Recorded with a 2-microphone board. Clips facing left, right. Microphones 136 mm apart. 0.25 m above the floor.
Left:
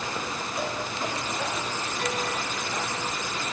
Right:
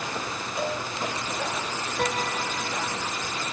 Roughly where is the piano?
Right.